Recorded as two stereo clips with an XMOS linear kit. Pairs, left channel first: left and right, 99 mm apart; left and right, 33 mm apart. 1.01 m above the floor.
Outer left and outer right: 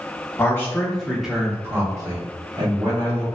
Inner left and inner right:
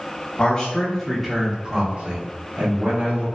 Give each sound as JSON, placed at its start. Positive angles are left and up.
{"t": 0.4, "sound": "a man speaking", "side_deg": 25, "distance_m": 1.2}